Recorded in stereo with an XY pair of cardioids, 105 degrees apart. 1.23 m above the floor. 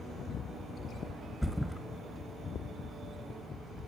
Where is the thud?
5° left, 2.5 m.